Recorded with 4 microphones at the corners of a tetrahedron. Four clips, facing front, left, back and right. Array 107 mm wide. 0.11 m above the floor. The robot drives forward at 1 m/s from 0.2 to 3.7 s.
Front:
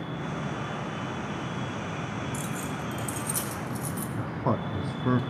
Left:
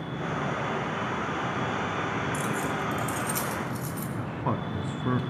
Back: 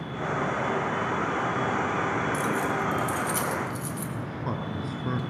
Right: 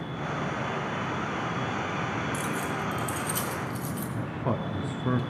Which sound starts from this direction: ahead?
A man speaking, at 4.2 s.